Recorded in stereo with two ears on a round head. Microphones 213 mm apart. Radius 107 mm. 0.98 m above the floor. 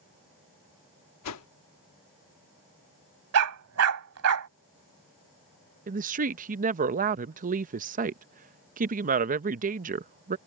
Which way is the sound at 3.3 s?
65° right (ahead or behind).